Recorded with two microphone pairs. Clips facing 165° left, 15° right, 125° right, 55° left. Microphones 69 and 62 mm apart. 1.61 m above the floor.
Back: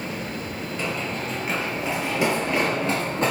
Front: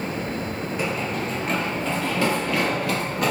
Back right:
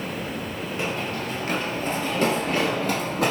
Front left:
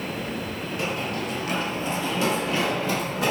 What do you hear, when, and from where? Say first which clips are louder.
0.8 s running footsteps: front 2 dB, even; 80° right, 1.8 m; by 3.3 s 140° right, 3 m